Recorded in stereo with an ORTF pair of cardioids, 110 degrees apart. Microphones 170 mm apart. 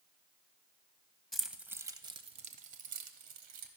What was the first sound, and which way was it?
Keys jangling, 5° left.